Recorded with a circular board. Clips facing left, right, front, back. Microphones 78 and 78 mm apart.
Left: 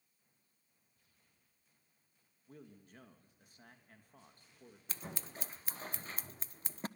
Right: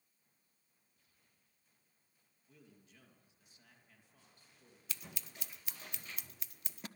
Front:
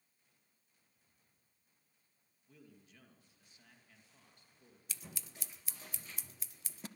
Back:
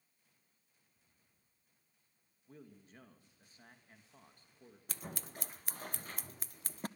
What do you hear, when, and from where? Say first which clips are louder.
2.5 s a man speaking: left 7 dB, back 5 dB; 130° left, 3 m
4.9 s scissors: left 5 dB, back 6 dB; 140° left, 0.6 m